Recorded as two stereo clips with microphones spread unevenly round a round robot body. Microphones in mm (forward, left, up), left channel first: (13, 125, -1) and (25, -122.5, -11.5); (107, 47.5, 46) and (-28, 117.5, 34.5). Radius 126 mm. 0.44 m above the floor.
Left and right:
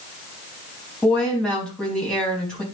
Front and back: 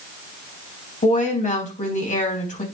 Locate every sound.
1.0 s a woman speaking: 5° left, 4 m